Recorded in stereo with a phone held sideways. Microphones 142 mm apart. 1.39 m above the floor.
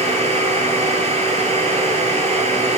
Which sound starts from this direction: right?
A machine running, at 0.0 s.